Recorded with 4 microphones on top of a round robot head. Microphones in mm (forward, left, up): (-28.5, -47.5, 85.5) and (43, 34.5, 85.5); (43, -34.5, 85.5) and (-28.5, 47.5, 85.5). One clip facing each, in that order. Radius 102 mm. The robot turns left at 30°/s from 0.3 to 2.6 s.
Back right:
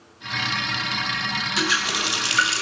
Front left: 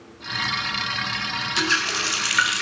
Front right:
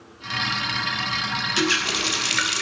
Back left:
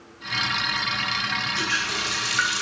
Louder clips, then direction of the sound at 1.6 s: Even, front right 4 dB; 45° right.